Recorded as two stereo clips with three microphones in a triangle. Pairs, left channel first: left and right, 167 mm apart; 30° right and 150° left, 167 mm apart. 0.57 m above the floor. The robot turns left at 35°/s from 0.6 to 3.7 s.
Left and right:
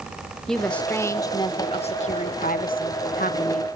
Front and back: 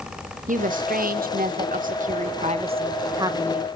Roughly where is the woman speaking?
Behind.